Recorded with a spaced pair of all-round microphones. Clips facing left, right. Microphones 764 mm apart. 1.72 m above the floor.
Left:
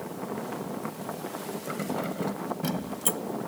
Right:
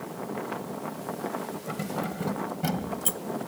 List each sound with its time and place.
1.7 s keys jangling: 30° right (ahead or behind); by 3.2 s 20° right (ahead or behind)